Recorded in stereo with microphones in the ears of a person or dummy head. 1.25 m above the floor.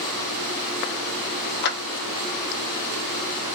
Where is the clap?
55° left (ahead or behind), 0.7 m.